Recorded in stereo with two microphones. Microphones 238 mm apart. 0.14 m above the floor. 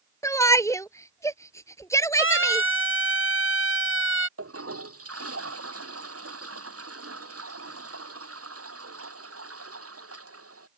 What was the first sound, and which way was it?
A shout, 15° left (ahead or behind).